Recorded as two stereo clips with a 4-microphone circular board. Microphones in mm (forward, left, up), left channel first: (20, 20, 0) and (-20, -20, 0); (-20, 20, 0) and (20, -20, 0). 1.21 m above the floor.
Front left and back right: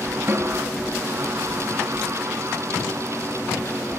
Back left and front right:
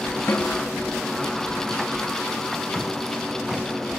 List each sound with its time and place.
0.3 s a snare drum: straight behind, 2.5 m